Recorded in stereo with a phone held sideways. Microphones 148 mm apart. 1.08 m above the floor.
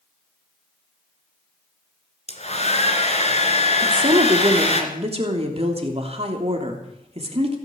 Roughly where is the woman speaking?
Right.